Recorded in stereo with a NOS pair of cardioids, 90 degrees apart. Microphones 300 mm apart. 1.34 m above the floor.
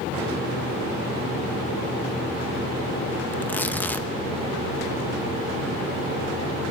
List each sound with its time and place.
3.3 s tearing paper: 5° left, 1.0 m